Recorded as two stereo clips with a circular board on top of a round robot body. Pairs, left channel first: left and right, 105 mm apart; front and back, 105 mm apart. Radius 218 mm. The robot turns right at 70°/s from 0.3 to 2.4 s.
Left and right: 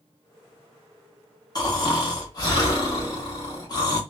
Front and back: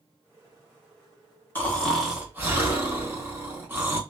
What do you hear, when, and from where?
1.6 s snoring: 60° left, 1.3 m; by 4.0 s 120° left, 1.3 m